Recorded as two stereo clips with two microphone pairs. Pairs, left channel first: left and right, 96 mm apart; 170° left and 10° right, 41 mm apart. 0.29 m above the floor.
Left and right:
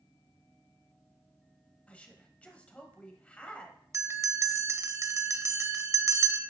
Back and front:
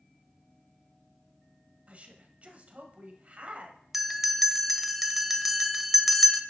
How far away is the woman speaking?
About 1.2 m.